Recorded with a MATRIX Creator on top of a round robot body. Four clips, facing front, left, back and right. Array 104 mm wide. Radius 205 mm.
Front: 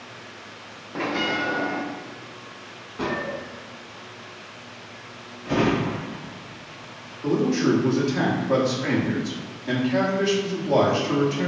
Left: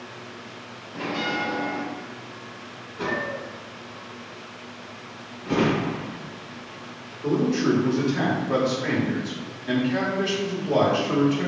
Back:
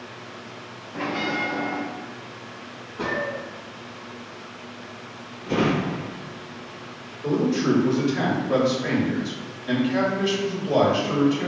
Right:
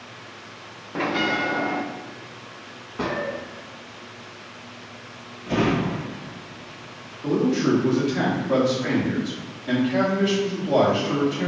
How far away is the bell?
About 0.5 m.